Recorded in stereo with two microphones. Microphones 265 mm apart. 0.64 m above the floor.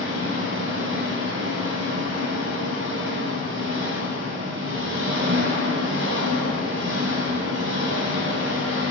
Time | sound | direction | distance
0.0 | an engine running | 50° right (ahead or behind) | 0.7 m